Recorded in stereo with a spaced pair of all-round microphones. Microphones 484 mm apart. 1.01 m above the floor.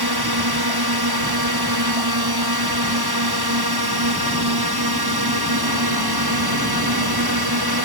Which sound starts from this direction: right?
A drone, at 0.0 s.